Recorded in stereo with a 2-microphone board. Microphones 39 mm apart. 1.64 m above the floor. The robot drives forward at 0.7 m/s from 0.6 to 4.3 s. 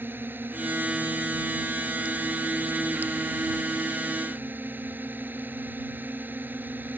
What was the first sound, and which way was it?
A drone, 60° right (ahead or behind).